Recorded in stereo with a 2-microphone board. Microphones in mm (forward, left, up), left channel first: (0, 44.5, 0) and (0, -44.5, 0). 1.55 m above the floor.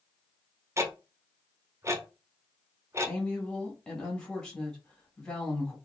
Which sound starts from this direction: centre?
A woman speaking, at 3.1 s.